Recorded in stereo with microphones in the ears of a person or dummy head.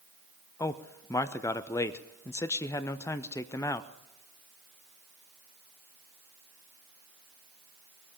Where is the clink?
I don't hear a clink.